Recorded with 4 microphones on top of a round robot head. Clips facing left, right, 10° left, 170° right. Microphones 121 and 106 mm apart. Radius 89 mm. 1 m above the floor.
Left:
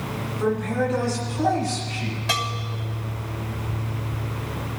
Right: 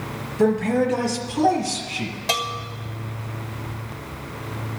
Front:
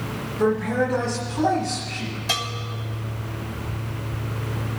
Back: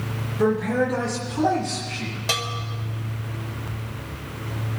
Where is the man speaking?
90° right, 3.5 m.